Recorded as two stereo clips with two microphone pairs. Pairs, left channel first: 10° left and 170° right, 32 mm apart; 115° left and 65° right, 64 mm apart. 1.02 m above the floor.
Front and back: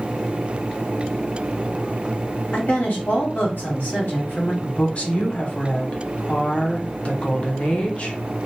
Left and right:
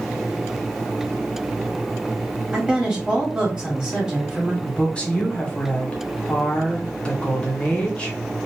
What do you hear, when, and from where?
2.5 s a woman speaking: 10° left, 1.6 m
4.6 s a woman speaking: 50° left, 1.0 m